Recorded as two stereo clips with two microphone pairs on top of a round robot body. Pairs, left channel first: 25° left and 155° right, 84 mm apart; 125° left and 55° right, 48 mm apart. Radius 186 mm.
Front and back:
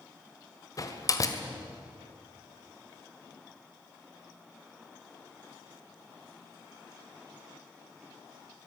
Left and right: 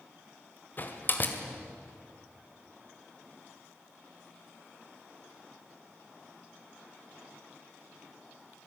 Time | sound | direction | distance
0.8 | a door slam | 70° left | 1.9 m